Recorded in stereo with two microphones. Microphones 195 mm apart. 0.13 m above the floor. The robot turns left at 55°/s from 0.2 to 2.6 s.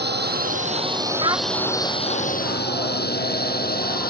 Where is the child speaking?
25° right (ahead or behind); by 1.5 s 10° right (ahead or behind).